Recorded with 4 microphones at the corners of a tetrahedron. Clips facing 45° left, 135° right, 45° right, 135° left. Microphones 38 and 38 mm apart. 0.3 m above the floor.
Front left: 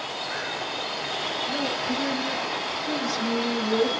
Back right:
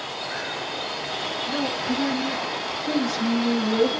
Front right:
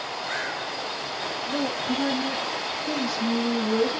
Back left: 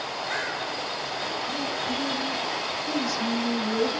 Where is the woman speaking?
95° right, 3 m; by 4.0 s 135° right, 1.8 m.